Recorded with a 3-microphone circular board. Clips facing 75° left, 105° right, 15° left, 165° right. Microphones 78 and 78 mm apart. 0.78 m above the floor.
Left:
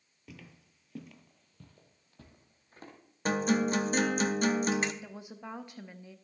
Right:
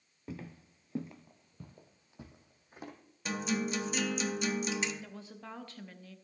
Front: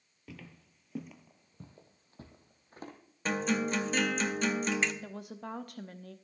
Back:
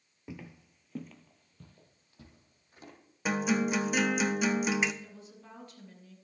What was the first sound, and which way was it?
Footsteps, 120° right.